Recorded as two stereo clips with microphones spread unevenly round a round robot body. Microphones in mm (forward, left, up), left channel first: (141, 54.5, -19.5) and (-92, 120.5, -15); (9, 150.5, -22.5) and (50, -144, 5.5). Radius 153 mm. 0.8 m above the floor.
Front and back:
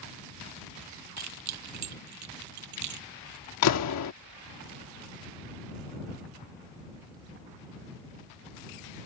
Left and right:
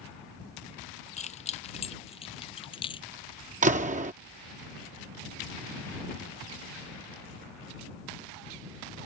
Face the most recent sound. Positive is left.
turn(degrees=-15)